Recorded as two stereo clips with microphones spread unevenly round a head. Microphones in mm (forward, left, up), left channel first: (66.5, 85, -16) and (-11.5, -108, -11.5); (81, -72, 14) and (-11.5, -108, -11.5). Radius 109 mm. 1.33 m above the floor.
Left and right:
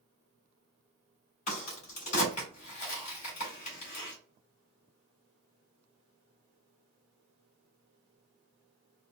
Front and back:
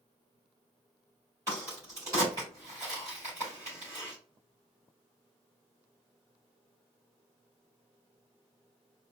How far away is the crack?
About 2.5 m.